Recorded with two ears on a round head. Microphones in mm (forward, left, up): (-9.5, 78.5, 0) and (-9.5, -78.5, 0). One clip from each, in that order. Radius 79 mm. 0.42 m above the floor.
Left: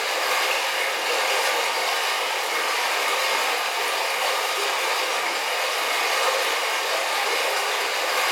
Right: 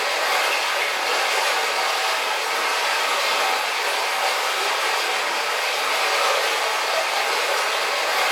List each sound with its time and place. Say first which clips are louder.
0.0 s running water: right 2 dB; 60° left (ahead or behind), 1.4 m